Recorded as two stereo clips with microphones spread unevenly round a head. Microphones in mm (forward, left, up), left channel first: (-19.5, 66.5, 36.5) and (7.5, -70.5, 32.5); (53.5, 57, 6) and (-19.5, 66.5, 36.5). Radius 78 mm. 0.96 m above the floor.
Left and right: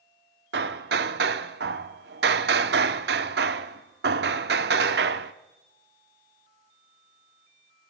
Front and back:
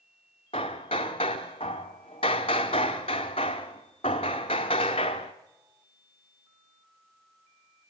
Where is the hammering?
65° right, 0.8 m.